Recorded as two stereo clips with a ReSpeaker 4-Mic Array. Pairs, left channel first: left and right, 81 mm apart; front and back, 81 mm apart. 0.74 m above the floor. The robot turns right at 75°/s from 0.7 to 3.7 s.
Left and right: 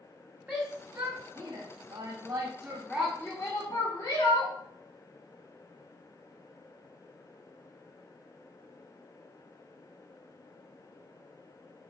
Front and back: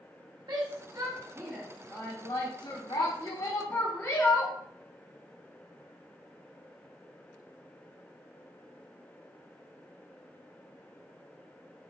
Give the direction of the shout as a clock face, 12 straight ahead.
5 o'clock.